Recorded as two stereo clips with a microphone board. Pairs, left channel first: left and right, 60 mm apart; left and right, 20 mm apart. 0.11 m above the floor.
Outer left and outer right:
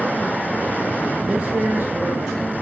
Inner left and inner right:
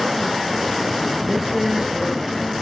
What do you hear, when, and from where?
1.3 s a man speaking: 10° right (ahead or behind), 1.1 m; by 2.5 s 45° right (ahead or behind), 2.5 m